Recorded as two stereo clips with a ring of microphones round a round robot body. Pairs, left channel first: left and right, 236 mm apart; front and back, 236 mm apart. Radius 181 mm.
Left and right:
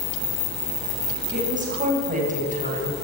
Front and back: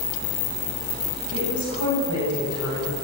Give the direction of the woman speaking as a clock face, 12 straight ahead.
1 o'clock.